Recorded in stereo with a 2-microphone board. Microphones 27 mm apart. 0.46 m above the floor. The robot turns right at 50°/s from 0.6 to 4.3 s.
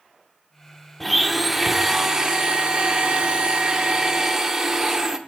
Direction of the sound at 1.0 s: 165° left.